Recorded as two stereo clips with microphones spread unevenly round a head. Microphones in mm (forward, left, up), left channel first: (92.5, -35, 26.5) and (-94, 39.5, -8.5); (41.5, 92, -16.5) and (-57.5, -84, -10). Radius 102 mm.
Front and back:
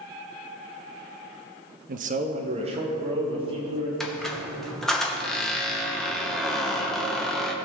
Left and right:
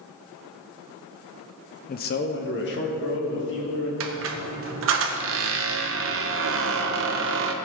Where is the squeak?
105° right, 0.9 m.